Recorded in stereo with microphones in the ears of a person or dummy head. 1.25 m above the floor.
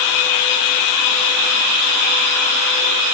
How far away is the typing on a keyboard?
No typing on a keyboard in this recording.